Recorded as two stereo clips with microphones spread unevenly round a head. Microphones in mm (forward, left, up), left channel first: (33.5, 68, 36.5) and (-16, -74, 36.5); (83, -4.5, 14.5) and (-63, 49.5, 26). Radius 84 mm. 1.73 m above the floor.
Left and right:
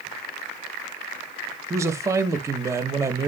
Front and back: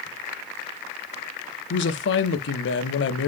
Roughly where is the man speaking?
Ahead right.